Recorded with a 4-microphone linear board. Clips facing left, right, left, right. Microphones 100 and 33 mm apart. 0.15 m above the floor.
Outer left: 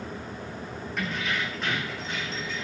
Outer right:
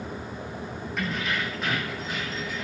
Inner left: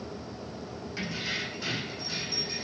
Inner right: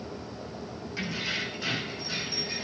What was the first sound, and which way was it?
Keys jangling, centre (ahead or behind).